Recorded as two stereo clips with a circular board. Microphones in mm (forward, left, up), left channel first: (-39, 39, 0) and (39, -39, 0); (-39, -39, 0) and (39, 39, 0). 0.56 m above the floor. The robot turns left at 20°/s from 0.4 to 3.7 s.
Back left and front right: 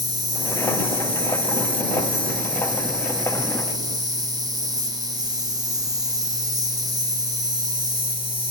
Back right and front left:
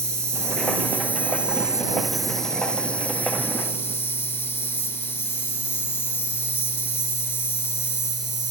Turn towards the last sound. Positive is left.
turn(degrees=-75)